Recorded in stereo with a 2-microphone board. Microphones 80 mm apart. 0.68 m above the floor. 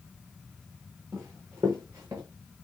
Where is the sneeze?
I don't hear a sneeze.